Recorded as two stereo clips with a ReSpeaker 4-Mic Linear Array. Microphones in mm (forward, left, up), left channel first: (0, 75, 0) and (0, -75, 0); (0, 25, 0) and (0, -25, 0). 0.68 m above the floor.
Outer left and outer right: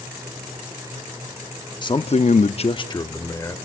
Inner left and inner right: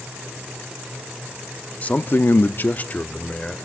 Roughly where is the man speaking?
Left.